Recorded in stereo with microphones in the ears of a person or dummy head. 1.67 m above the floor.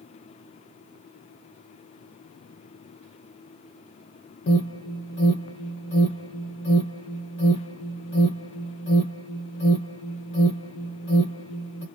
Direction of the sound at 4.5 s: 45° left (ahead or behind).